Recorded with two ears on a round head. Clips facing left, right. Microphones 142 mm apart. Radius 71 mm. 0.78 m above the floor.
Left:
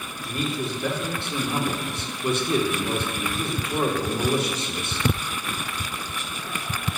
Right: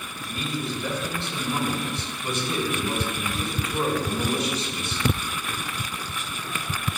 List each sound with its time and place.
0.2 s a man speaking: 45° left (ahead or behind), 1.7 m